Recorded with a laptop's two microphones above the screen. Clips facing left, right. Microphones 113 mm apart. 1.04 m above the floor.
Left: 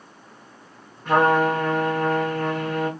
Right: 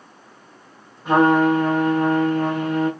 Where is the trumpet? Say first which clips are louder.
Right 3 dB; 15° right (ahead or behind), 1.7 m.